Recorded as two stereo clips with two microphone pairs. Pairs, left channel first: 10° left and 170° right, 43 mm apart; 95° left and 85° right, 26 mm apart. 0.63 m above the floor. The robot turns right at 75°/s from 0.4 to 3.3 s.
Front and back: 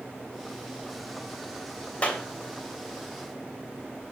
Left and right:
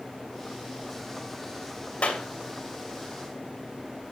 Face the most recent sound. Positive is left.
turn(degrees=165)